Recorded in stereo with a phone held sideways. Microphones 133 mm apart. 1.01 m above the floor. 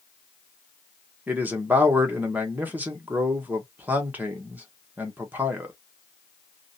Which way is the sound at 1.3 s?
10° right (ahead or behind).